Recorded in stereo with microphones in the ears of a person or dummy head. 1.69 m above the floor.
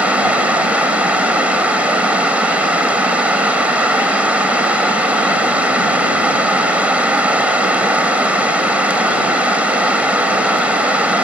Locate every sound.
0.0 s running water: centre (ahead or behind)